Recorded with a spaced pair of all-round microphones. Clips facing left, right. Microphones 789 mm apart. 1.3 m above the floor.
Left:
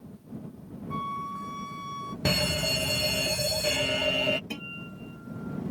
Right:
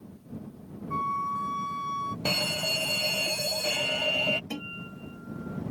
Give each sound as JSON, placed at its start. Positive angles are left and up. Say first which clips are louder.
{"t": 0.9, "sound": "a flute", "louder": "right 1 dB", "side_deg": 5}
{"t": 2.2, "sound": "a fire alarm", "louder": "left 5 dB", "side_deg": 50}
{"t": 4.5, "sound": "a guitar", "louder": "right 2 dB", "side_deg": 40}